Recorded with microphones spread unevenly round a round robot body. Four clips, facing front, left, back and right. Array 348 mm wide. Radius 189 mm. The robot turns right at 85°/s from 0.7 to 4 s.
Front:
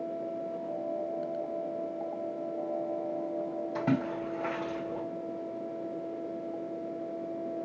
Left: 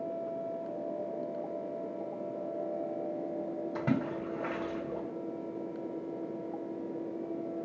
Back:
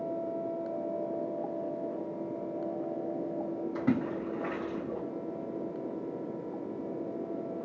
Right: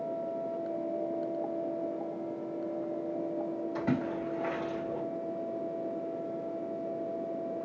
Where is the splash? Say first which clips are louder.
Even, even; 80° left, 2.5 m; by 5.0 s 105° left, 2.5 m.